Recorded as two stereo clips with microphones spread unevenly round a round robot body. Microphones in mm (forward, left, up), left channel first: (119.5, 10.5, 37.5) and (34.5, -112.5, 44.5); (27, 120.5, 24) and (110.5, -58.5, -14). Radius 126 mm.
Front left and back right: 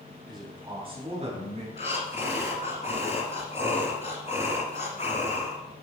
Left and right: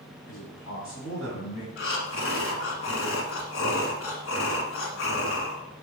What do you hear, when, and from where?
0.3 s a man speaking: 140° left, 3.5 m; by 1.7 s 175° left, 3.5 m
1.8 s breathing: 120° left, 1.7 m